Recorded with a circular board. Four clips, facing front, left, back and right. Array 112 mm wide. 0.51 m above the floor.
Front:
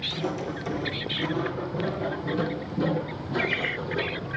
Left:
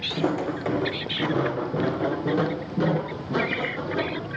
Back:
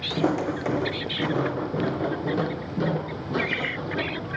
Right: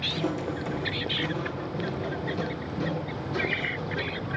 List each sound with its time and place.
0.1 s footsteps: 155° left, 1.3 m; by 4.3 s 120° left, 3.5 m